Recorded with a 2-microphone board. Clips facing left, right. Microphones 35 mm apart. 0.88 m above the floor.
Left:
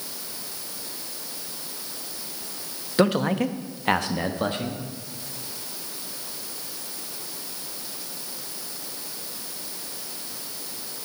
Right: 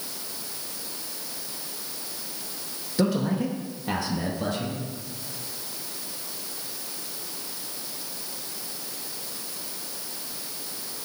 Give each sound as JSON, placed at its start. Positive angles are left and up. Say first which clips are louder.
{"t": 3.0, "sound": "a man speaking", "louder": "left 3 dB", "side_deg": 45, "distance_m": 0.9}